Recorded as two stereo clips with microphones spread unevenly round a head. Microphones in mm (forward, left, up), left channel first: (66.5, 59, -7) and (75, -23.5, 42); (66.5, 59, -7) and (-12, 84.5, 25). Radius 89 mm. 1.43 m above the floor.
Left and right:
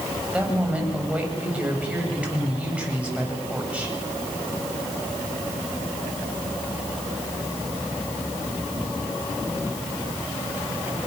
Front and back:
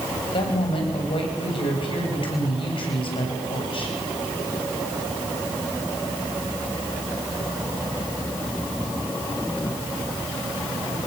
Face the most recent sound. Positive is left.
turn(degrees=-10)